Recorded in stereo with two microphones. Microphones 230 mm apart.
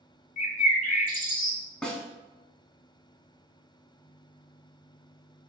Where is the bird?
35° left (ahead or behind), 0.6 m.